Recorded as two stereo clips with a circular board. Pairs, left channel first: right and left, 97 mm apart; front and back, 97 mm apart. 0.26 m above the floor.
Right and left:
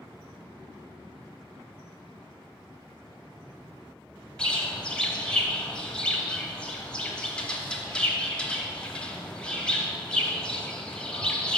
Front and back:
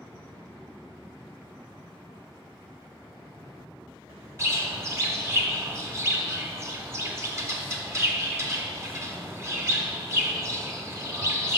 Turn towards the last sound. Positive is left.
turn(degrees=-160)